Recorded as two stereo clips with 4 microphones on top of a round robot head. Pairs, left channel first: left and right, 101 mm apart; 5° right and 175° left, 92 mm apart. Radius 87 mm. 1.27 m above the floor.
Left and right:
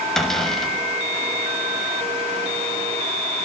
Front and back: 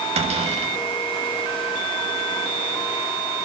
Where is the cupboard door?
175° left, 7 m.